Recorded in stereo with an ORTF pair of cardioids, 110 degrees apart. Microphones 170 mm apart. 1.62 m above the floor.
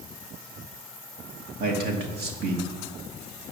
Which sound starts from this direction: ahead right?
A man speaking, at 1.6 s.